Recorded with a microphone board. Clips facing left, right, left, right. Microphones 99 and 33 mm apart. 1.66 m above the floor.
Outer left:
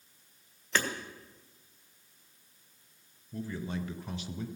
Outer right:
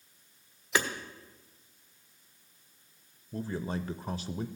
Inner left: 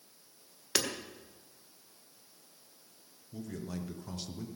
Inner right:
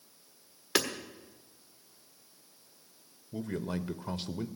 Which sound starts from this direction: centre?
Hammering, at 0.8 s.